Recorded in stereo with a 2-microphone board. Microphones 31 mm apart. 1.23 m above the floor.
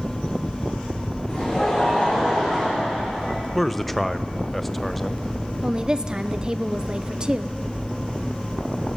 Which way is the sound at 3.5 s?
5° left (ahead or behind).